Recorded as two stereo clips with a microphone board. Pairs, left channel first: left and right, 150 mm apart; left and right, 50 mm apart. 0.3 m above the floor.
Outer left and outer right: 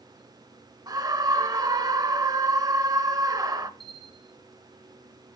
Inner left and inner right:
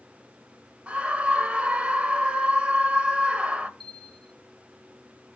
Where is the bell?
Centre (ahead or behind), 4.5 m.